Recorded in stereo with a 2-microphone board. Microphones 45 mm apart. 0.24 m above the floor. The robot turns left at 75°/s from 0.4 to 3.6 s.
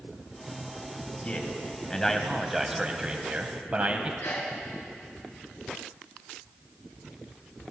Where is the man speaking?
85° left, 1.1 m; by 4.1 s 90° right, 1.1 m.